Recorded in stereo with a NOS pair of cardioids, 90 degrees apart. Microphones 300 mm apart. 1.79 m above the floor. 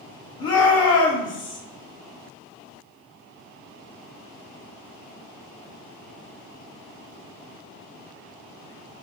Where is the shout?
55° left, 1.8 m.